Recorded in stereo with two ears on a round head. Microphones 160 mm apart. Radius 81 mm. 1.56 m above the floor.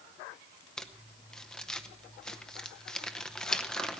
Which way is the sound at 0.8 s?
5° left (ahead or behind).